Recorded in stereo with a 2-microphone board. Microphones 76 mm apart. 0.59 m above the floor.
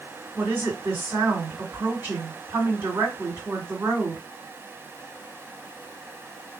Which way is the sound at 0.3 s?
30° right (ahead or behind).